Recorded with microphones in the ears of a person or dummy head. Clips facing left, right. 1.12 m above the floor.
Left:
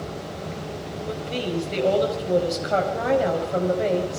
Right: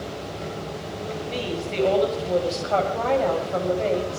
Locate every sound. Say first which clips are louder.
1.1 s a woman speaking: left 1 dB; 15° left (ahead or behind), 5 m